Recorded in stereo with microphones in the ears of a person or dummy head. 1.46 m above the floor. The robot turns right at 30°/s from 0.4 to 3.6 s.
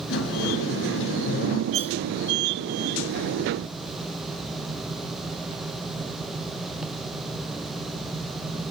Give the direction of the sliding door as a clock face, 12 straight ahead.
9 o'clock.